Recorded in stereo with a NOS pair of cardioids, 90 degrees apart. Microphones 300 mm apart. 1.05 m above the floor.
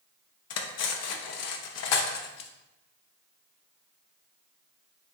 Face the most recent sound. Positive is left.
turn(degrees=60)